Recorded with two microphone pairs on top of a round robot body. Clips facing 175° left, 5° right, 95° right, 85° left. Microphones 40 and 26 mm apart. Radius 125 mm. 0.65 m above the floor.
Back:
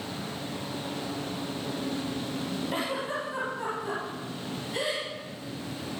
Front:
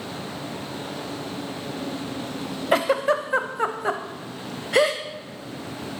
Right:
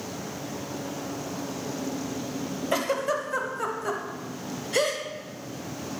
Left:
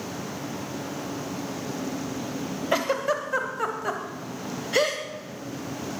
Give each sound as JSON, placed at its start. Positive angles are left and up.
{"t": 2.7, "sound": "a giggle", "azimuth_deg": 10, "distance_m": 0.9}